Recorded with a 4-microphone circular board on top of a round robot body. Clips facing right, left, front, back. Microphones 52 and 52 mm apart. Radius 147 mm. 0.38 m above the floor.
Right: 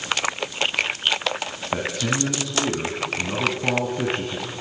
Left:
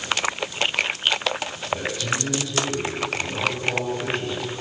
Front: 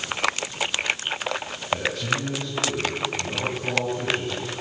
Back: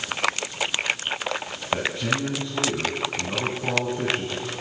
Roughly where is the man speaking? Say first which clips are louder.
Right 2 dB, even; behind right.